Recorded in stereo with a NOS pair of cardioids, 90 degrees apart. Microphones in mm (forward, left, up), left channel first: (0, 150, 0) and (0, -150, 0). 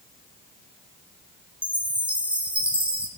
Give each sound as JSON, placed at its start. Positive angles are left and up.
{"t": 1.6, "sound": "a chime", "azimuth_deg": -5, "distance_m": 2.5}